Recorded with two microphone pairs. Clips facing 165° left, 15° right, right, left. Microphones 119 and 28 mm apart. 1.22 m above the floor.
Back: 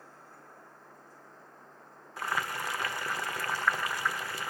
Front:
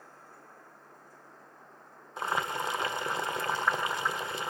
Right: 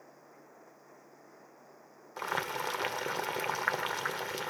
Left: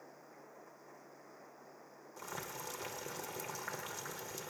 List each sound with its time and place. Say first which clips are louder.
2.2 s boiling: front 2 dB, right 11 dB; 75° right, 0.5 m